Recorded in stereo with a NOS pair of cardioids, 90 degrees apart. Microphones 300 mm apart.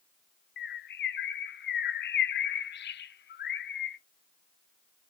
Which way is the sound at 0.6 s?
35° left.